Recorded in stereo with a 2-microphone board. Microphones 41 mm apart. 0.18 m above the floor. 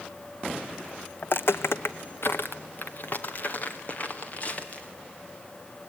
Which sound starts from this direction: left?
Footsteps, at 1.2 s.